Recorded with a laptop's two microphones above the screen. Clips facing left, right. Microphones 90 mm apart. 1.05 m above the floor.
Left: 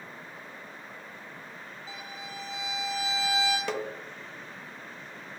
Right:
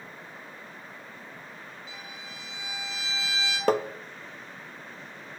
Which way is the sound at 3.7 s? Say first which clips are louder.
Right 8 dB; 50° right (ahead or behind).